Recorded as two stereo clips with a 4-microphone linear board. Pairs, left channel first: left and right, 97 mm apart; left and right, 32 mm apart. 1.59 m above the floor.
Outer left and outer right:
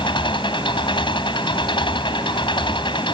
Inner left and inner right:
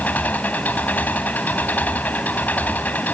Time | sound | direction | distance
0.0 | an engine running | 60° left (ahead or behind) | ?